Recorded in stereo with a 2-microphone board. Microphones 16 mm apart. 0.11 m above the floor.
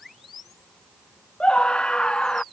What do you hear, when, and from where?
1.4 s a scream: 75° left (ahead or behind)